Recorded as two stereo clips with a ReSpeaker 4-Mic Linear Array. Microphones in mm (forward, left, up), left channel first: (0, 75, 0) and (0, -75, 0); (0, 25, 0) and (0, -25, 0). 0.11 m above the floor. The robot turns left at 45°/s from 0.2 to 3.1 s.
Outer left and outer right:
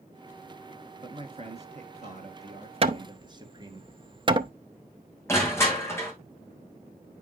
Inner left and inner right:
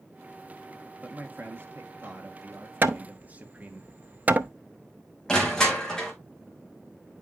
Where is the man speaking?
45° right, 1.8 m; by 3.8 s 140° right, 1.8 m.